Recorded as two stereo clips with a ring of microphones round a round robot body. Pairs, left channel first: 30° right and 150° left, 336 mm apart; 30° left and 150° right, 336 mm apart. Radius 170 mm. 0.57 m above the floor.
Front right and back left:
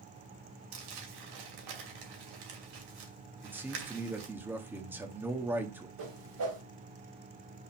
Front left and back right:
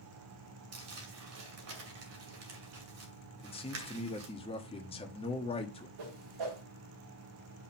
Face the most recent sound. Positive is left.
turn(degrees=-170)